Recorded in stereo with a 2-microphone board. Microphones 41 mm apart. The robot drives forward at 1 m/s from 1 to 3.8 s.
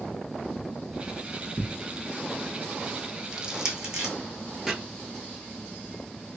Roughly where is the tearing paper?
Left.